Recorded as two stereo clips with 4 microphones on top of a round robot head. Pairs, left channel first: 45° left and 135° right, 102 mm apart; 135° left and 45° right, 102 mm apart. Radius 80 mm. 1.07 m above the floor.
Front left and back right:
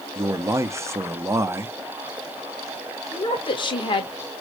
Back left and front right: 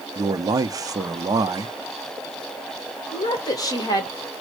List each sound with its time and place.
0.1 s a man speaking: 85° right, 0.7 m
3.1 s a woman speaking: 85° left, 1.5 m